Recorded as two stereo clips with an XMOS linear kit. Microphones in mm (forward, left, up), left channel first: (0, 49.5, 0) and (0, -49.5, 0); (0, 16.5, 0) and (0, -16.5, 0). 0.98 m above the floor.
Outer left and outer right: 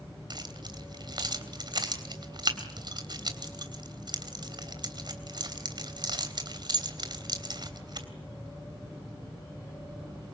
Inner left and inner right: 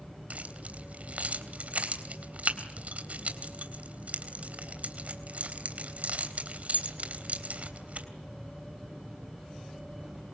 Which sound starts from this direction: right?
Keys jangling, at 0.3 s.